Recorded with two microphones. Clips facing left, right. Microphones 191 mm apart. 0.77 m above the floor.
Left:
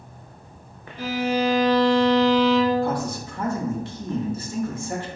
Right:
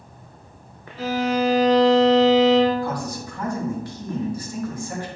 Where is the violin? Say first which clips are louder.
Right 1 dB; 20° left (ahead or behind), 1.2 m.